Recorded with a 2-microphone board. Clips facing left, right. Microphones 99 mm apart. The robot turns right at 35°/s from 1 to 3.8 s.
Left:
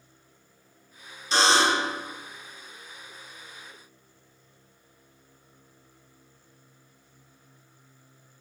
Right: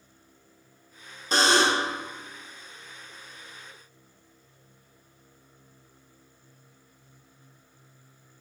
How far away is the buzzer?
About 0.7 m.